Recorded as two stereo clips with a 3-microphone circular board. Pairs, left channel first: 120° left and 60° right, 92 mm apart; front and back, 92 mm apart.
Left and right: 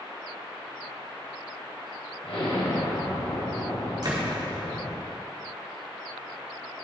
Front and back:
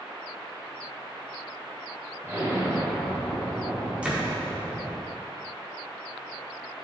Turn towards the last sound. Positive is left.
turn(degrees=-100)